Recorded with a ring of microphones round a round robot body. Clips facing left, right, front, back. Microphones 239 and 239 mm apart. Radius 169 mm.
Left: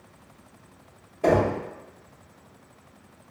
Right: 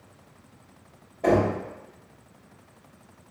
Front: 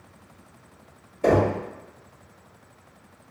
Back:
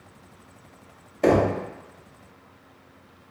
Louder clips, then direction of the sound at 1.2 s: Even, back 1 dB; 165° left.